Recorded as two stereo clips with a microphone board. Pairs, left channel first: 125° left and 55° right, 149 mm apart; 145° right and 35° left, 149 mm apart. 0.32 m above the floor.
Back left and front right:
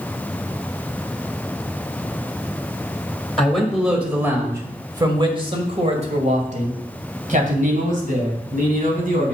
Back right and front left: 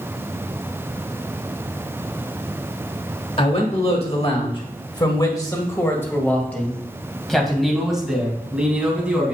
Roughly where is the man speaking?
Behind right.